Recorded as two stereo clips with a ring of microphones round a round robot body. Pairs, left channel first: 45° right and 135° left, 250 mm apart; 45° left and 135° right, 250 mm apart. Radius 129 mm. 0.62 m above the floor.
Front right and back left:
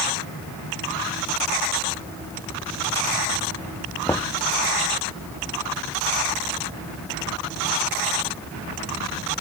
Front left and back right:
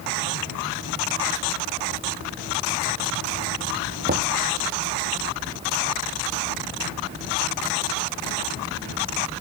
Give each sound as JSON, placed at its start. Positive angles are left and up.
{"t": 4.1, "sound": "knocking", "azimuth_deg": -120}